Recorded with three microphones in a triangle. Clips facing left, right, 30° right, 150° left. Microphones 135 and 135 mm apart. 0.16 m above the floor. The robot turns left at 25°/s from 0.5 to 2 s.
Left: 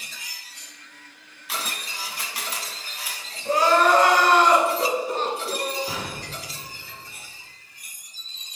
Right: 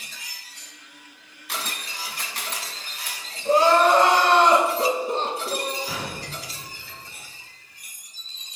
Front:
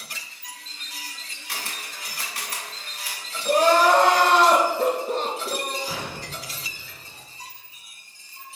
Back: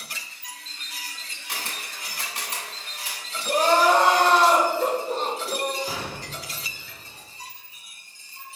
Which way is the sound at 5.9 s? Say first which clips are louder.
Even, even; 120° left.